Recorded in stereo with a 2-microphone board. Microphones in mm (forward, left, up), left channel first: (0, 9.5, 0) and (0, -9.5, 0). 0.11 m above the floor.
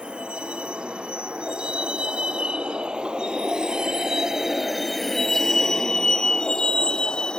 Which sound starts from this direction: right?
A vehicle, at 0.0 s.